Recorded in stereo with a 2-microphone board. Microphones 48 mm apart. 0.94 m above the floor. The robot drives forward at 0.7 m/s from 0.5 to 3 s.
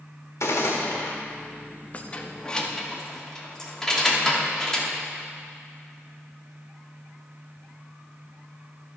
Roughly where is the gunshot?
Left.